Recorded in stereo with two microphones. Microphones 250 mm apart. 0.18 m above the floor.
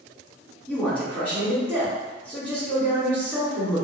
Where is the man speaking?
5° left (ahead or behind), 1.6 m.